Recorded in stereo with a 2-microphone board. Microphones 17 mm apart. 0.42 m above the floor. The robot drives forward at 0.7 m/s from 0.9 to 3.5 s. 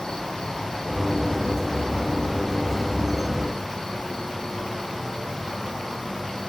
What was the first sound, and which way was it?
An insect, 75° left (ahead or behind).